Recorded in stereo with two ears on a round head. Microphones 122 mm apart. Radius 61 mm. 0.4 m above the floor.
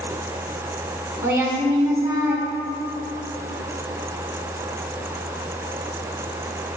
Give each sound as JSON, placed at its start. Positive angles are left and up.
{"t": 1.2, "sound": "a woman speaking", "side_deg": -20, "distance_m": 1.1}